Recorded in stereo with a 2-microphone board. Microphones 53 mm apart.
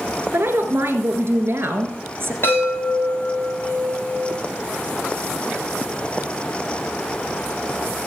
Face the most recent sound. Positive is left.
turn(degrees=45)  # may be behind; listen again after turning